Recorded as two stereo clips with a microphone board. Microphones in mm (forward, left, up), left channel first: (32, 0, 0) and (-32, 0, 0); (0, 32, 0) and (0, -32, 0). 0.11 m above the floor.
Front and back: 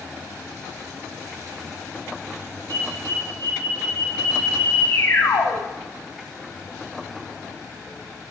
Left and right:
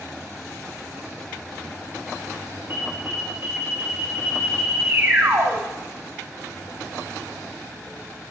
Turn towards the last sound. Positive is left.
turn(degrees=-35)